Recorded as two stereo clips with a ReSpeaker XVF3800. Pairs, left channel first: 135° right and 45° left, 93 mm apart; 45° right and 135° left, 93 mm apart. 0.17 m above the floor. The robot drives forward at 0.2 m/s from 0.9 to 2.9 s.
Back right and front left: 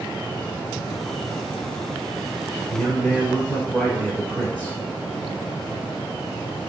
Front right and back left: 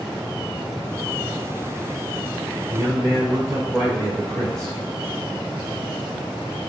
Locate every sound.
2.7 s a man speaking: 155° left, 1.9 m; by 4.8 s 160° left, 1.9 m